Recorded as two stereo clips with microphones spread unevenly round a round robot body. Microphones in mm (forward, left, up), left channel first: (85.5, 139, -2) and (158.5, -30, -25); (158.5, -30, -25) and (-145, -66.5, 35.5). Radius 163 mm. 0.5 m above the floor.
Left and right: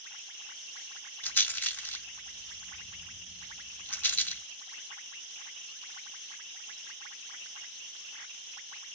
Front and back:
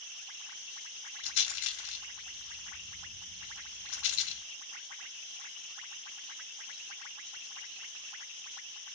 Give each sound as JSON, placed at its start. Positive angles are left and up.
{"t": 1.2, "sound": "a rattle", "azimuth_deg": 35, "distance_m": 1.2}